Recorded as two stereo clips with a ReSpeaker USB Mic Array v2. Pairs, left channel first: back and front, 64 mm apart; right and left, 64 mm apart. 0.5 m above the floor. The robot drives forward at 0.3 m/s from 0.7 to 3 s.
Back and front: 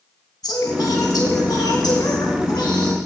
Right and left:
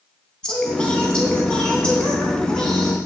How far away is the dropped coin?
No dropped coin in this recording.